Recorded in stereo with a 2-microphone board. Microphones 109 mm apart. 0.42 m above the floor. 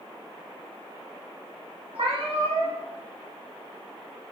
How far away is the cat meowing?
About 1.0 m.